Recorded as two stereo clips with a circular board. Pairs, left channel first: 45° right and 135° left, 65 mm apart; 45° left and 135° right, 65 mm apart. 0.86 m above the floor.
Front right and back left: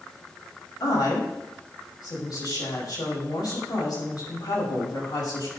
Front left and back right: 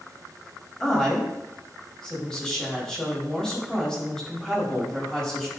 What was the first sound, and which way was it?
A woman speaking, 35° right.